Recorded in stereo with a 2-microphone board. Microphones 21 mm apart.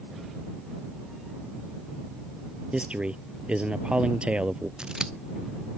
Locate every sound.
2.7 s a man speaking: 65° right (ahead or behind)
4.8 s scissors: 45° right (ahead or behind)